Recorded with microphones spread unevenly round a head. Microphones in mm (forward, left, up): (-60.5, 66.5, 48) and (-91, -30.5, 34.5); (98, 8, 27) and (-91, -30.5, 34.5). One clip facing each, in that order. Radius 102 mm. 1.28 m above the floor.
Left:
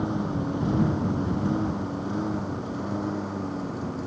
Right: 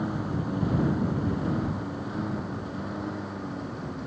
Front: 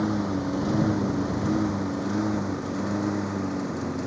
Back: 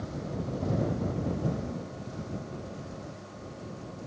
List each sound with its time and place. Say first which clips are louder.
0.0 s a lawn mower: left 3 dB, front 11 dB; straight ahead